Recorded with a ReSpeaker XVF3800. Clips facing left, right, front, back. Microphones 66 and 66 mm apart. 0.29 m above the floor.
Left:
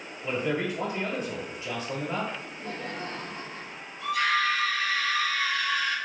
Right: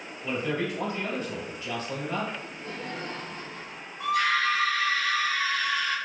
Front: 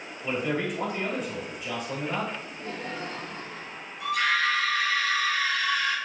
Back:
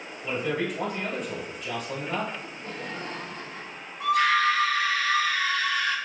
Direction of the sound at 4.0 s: 145° right.